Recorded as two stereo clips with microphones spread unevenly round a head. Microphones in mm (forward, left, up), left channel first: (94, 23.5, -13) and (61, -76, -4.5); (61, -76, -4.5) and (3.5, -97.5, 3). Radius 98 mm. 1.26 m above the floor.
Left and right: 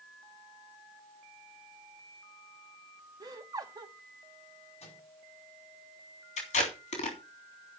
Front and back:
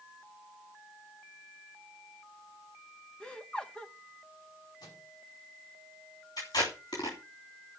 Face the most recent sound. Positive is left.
turn(degrees=80)